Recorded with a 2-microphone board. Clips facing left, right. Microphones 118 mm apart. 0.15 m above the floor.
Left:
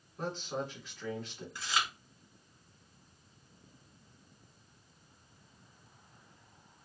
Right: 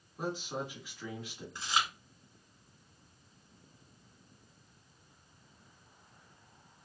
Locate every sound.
0.2 s a man speaking: 10° right (ahead or behind), 1.2 m
1.6 s chewing: 25° right (ahead or behind), 1.7 m